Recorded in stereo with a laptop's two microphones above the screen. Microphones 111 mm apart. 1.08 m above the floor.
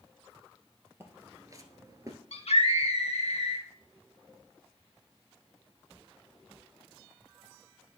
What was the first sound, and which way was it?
Footsteps, 25° right (ahead or behind).